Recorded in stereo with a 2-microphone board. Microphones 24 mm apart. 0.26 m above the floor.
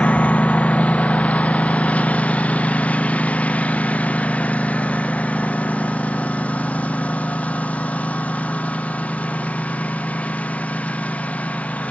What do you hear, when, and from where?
0.0 s a lawn mower: 60° left (ahead or behind); by 11.9 s 65° left (ahead or behind)